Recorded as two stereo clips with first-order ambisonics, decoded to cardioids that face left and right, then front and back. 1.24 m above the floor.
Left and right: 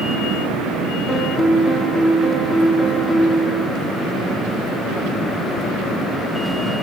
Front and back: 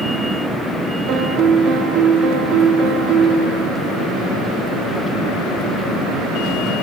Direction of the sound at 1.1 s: 170° left.